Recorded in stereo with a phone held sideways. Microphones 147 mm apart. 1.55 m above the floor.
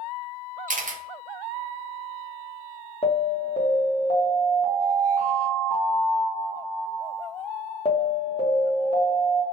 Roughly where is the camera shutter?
Right.